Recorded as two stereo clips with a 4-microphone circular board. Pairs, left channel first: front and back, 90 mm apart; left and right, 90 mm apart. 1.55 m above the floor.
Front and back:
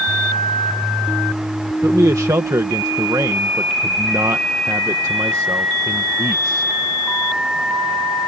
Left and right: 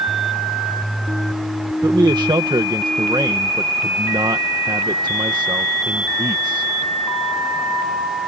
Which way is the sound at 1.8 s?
130° right.